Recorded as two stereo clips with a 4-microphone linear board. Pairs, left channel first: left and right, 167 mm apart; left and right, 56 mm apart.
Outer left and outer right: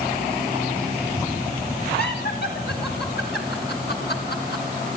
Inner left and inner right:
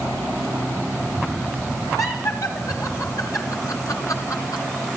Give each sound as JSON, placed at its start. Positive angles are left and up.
{"t": 2.0, "sound": "laughter", "side_deg": 85, "distance_m": 9.5}